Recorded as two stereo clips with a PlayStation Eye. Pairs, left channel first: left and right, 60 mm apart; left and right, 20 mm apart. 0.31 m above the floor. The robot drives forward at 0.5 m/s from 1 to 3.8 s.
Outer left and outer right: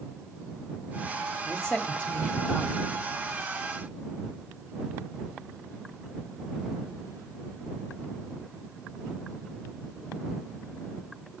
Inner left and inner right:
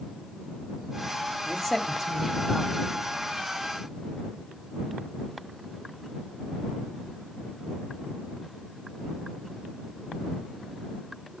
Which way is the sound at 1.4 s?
20° left (ahead or behind).